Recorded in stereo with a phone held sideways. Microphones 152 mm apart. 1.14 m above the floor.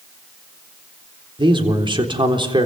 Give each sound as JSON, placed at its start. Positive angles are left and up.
{"t": 1.4, "sound": "a man speaking", "side_deg": -30, "distance_m": 3.5}